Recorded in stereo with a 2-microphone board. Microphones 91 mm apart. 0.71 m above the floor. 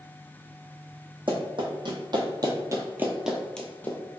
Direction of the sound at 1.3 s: 60° right (ahead or behind).